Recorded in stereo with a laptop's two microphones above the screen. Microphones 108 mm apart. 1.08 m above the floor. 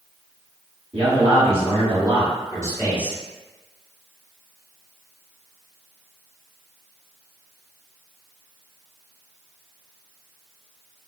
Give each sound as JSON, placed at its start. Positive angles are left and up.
{"t": 0.9, "sound": "a man speaking", "side_deg": -65, "distance_m": 2.0}